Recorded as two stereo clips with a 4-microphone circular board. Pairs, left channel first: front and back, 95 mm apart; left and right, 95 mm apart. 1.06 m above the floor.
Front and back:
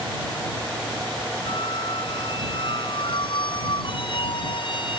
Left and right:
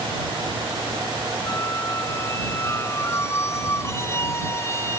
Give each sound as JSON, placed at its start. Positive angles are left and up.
{"t": 1.5, "sound": "a squeak", "azimuth_deg": 30}